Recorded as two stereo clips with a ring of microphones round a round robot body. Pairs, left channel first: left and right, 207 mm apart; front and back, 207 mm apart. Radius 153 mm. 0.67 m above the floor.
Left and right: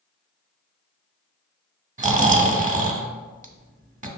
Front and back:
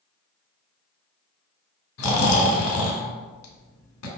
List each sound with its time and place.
2.0 s snoring: 35° right, 0.8 m